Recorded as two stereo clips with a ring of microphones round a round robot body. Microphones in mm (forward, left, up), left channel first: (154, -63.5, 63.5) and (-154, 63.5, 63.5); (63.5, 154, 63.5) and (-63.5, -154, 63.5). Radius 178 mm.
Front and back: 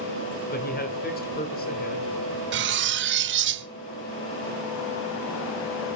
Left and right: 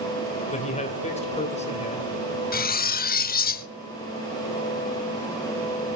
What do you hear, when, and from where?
0.5 s a man speaking: 15° left, 1.7 m
2.5 s cutlery clinking: 120° left, 0.7 m